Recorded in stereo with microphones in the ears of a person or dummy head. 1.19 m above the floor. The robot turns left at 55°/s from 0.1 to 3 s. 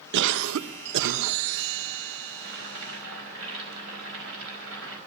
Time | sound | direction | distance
0.1 | a cough | 60° right | 0.9 m
2.4 | boiling | 50° right | 5 m